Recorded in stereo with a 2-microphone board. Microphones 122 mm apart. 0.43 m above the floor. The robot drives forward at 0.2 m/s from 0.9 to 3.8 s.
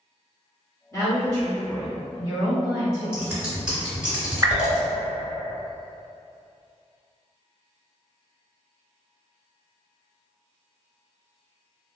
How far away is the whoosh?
About 0.5 m.